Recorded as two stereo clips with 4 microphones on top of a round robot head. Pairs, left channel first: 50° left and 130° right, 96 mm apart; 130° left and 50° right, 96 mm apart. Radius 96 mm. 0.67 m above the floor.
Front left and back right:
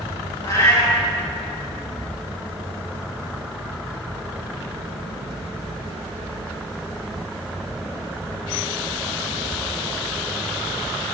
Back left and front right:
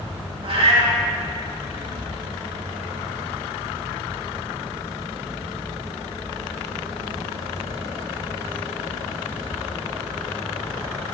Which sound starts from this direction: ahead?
A cat meowing, at 0.4 s.